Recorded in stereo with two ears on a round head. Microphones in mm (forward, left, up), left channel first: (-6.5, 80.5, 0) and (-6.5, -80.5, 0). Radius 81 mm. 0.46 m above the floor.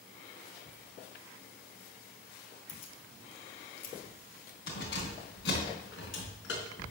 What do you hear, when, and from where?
2.7 s keys jangling: 40° left (ahead or behind), 2.0 m; by 6.9 s 80° left, 4.5 m